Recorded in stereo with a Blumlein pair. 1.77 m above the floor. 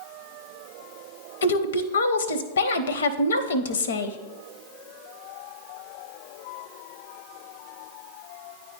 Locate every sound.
1.4 s a woman speaking: 70° left, 0.6 m